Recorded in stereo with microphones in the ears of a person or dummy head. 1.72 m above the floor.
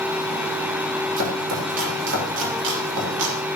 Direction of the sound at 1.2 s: 70° right (ahead or behind).